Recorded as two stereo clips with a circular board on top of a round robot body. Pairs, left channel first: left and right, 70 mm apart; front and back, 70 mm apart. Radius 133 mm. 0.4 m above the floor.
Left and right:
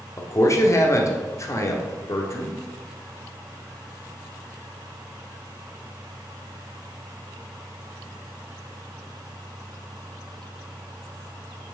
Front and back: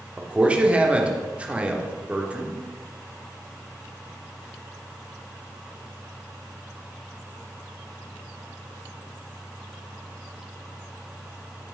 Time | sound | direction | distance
0.2 | a man speaking | 115° left | 1.4 m